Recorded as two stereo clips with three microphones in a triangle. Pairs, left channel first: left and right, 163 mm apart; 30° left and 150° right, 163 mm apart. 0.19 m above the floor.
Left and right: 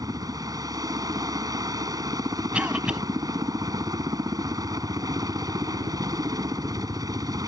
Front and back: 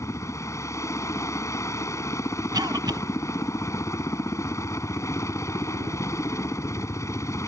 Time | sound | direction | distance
0.0 | a helicopter | 35° right | ?
2.5 | a cough | 165° right | ?